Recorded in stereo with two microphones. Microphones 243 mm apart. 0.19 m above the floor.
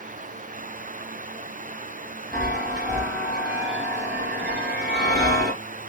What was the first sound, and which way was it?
A chime, 45° right (ahead or behind).